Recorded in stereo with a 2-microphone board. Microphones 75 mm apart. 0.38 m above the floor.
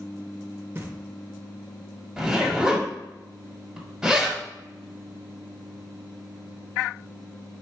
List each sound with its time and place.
0.8 s knocking: 35° right (ahead or behind), 0.6 m
2.2 s a zipper: 10° right (ahead or behind), 1.2 m